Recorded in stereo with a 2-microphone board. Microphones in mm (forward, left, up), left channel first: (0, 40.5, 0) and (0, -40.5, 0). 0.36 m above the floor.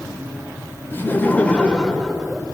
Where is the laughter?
25° left (ahead or behind), 0.9 m; by 2.4 s 5° right (ahead or behind), 0.9 m.